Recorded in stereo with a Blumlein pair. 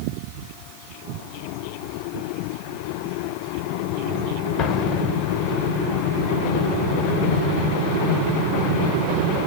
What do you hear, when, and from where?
4.6 s an explosion: 25° left, 1.5 m